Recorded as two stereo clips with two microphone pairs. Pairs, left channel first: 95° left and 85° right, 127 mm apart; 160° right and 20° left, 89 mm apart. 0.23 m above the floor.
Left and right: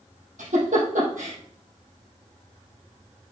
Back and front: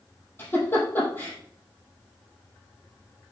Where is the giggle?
90° right, 4 m.